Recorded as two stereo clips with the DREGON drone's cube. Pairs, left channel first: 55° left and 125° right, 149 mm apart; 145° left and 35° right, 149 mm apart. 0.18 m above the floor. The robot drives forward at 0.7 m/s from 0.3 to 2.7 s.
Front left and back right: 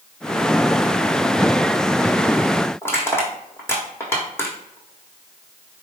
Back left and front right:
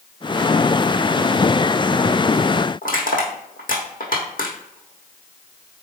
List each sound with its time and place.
2.8 s crushing: 130° left, 1.3 m